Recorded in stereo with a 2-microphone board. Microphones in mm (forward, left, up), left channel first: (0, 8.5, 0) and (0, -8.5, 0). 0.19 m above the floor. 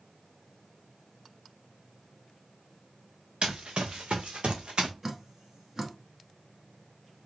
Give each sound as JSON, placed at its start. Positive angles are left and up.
{"t": 3.4, "sound": "running footsteps", "side_deg": -65, "distance_m": 1.2}
{"t": 5.0, "sound": "dripping", "side_deg": -25, "distance_m": 0.9}